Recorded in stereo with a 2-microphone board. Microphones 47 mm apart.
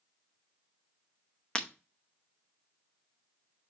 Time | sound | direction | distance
1.6 | breaking glass | 20° left (ahead or behind) | 0.9 m